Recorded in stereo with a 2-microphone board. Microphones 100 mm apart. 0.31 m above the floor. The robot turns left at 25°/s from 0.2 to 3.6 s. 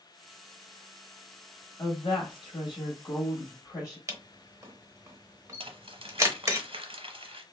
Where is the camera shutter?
30° right (ahead or behind), 0.8 m.